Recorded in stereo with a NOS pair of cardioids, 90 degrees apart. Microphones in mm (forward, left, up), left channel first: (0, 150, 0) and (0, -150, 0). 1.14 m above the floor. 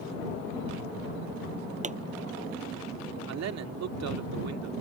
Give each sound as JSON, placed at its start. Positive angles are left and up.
{"t": 1.8, "sound": "a pop", "azimuth_deg": -25}
{"t": 3.3, "sound": "a man speaking", "azimuth_deg": -60}